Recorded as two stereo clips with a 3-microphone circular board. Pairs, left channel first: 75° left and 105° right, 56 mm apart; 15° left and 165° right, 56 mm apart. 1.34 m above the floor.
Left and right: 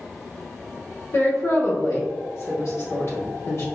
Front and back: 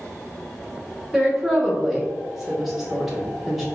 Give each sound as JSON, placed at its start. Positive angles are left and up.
{"t": 1.1, "sound": "a woman speaking", "azimuth_deg": 105, "distance_m": 1.2}